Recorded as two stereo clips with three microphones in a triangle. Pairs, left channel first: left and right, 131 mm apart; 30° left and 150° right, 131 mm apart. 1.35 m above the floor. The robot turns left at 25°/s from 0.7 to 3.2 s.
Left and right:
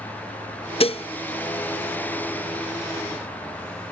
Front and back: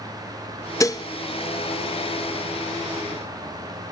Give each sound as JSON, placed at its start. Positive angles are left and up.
{"t": 0.8, "sound": "dishes clattering", "azimuth_deg": 85}